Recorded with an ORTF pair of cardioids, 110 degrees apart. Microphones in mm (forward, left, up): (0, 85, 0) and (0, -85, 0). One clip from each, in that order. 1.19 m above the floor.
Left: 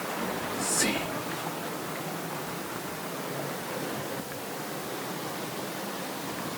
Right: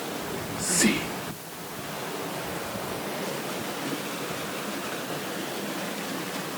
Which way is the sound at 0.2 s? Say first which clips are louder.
Left 1 dB; 30° right.